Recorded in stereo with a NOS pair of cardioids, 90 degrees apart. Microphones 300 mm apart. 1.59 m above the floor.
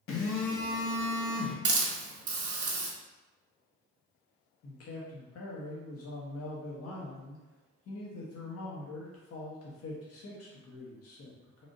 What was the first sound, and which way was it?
A phone buzzing, 45° left.